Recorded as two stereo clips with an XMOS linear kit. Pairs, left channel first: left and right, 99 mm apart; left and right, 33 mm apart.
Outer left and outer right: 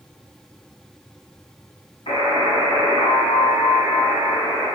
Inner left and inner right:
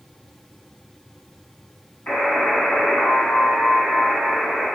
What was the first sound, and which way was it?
A buzzer, 60° left (ahead or behind).